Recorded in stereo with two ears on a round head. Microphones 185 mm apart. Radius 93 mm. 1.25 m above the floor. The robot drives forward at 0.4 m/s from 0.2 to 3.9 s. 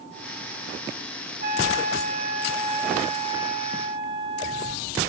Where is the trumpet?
40° right (ahead or behind), 0.7 m; by 4.8 s 25° right (ahead or behind), 1.0 m.